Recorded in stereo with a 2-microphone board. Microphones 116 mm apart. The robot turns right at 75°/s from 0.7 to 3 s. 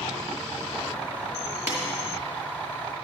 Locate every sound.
1.7 s a snare drum: 25° right (ahead or behind), 2.5 m; by 1.8 s 15° right (ahead or behind), 2.5 m